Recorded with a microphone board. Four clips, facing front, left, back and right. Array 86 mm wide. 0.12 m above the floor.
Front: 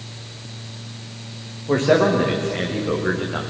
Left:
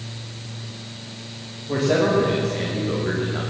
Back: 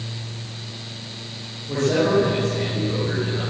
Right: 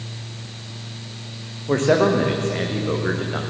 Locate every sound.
1.7 s a man speaking: 50° right, 8 m